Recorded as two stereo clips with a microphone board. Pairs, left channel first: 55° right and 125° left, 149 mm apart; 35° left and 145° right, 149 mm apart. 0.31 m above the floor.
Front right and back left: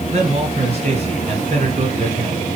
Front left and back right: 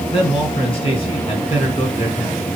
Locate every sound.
0.1 s a man speaking: 85° left, 3 m